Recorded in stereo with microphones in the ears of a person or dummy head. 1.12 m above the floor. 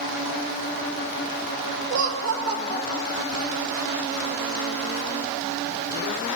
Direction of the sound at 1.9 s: 65° right (ahead or behind).